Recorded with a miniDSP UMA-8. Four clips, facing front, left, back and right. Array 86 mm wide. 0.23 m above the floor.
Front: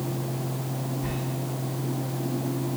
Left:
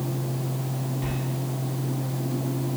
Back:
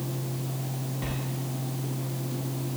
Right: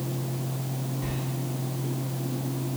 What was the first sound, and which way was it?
A sliding door, 165° left.